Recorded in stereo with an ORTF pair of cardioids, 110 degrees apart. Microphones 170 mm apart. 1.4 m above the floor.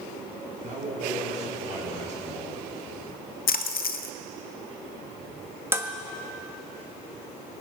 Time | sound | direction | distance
0.6 | a man speaking | 45° right | 5.5 m
3.5 | a splash | 60° left | 0.7 m
5.7 | dishes clattering | 15° right | 1.4 m